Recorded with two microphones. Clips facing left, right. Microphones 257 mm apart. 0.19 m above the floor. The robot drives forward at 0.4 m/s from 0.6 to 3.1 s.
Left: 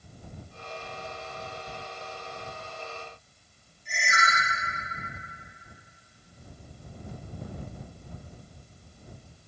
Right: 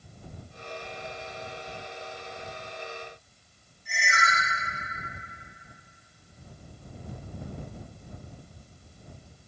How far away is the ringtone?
About 2.5 m.